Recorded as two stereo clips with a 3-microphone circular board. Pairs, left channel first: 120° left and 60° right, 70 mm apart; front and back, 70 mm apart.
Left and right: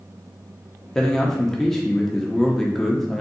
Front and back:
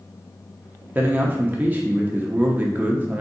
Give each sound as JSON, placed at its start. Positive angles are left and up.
{"t": 0.9, "sound": "a man speaking", "azimuth_deg": -160, "distance_m": 0.7}